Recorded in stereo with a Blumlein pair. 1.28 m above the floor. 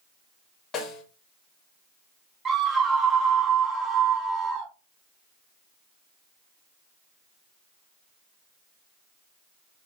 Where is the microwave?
No microwave in this recording.